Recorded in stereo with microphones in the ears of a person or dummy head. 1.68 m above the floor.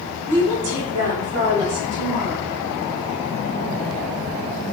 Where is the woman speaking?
65° right (ahead or behind), 1.9 m; by 2.5 s 15° right (ahead or behind), 2.5 m.